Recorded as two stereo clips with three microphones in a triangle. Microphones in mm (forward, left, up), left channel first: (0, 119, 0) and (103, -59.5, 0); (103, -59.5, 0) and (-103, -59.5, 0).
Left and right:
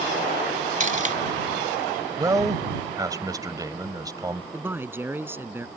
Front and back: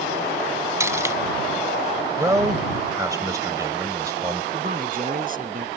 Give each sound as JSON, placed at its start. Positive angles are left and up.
{"t": 0.8, "sound": "cutlery clinking", "azimuth_deg": -105}
{"t": 2.2, "sound": "a man speaking", "azimuth_deg": -120}
{"t": 4.5, "sound": "a man speaking", "azimuth_deg": -140}